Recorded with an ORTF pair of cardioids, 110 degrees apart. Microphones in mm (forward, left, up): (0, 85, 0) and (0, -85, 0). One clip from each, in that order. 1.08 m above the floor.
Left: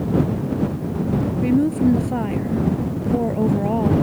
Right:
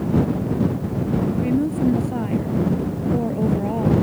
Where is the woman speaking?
25° left.